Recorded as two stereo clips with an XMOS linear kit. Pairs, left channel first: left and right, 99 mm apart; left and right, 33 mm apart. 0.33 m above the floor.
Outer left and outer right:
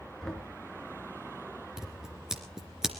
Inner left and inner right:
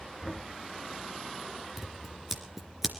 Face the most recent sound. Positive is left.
turn(degrees=-5)  # may be behind; listen again after turning